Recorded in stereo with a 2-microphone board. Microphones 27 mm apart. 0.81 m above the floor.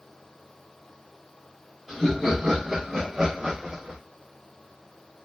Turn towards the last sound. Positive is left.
turn(degrees=-30)  # may be behind; listen again after turning